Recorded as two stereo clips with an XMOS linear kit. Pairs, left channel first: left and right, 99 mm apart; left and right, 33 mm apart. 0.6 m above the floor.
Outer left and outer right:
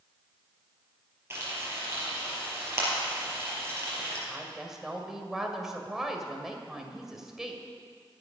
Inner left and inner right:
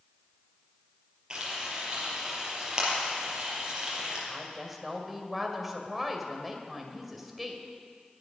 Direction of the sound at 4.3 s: 5° right (ahead or behind).